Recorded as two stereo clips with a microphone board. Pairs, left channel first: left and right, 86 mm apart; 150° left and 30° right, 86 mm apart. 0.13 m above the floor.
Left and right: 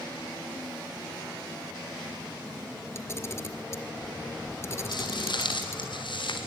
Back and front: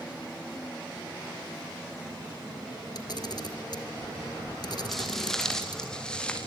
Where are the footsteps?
60° left, 4.5 m; by 6.5 s 70° left, 6 m.